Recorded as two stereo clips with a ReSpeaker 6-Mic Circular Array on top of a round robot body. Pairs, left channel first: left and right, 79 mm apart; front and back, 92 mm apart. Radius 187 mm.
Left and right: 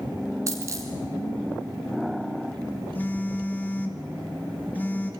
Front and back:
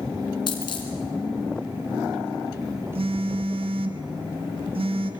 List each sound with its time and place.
0.5 s a dropped coin: 40° right, 2 m
3.0 s a phone buzzing: 160° left, 1.3 m